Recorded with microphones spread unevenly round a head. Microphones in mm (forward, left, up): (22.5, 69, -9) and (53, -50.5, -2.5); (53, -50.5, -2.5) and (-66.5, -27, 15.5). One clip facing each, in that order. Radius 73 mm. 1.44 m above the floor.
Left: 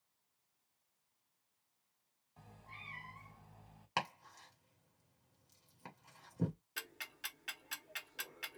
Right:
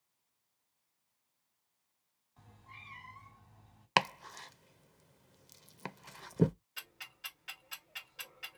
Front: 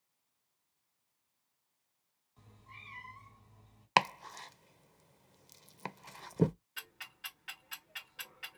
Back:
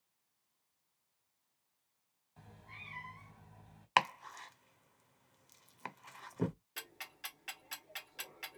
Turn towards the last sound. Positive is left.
turn(degrees=135)